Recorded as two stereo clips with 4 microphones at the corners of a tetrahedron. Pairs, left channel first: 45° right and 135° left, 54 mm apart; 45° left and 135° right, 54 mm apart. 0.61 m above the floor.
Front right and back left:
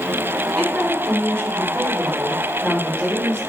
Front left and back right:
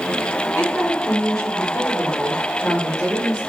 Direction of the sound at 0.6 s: 25° left.